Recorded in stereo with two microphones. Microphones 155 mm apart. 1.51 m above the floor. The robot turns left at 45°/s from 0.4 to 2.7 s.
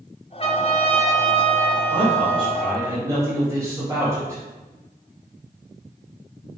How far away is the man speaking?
About 3 m.